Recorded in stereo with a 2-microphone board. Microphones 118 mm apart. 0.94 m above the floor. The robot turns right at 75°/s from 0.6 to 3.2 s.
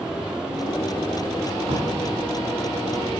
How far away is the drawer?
About 2 m.